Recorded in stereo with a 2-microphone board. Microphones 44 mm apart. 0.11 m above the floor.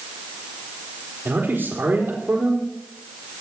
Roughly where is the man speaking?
Right.